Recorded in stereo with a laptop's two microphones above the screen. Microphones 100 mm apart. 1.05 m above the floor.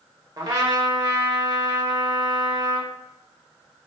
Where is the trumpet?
40° right (ahead or behind), 0.9 m.